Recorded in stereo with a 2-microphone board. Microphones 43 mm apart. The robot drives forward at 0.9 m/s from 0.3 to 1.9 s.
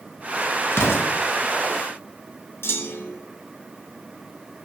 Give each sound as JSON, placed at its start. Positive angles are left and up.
{"t": 0.7, "sound": "an explosion", "side_deg": 70, "distance_m": 1.9}
{"t": 2.6, "sound": "a clunk", "side_deg": 70, "distance_m": 0.9}